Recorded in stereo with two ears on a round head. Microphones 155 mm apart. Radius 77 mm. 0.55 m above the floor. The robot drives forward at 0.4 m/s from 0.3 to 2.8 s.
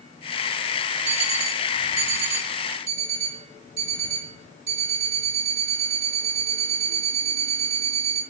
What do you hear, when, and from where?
1.1 s an alarm clock: 45° right (ahead or behind), 3.5 m; by 8.2 s 40° right (ahead or behind), 4 m